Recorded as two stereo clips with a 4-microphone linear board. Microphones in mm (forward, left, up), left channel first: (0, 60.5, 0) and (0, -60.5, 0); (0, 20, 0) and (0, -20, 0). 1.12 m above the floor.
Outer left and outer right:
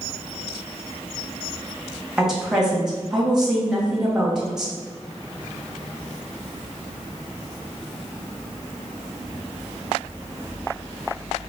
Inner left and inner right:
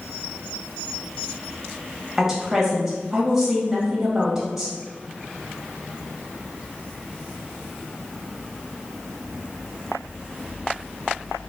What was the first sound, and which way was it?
A woman speaking, 5° right (ahead or behind).